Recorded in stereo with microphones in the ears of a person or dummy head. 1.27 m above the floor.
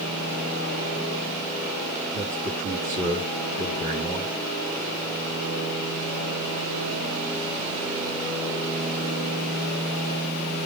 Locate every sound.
2.1 s a man speaking: 40° right (ahead or behind), 7 m